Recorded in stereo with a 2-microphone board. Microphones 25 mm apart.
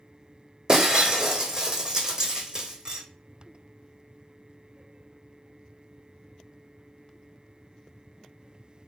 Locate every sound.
0.7 s breaking glass: 35° right (ahead or behind), 0.9 m